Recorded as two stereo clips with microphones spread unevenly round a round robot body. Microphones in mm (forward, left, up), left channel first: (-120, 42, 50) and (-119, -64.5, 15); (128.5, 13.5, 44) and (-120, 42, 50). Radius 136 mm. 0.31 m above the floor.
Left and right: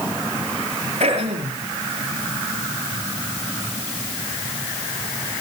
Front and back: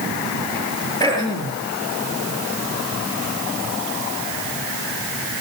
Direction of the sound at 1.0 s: 85° right.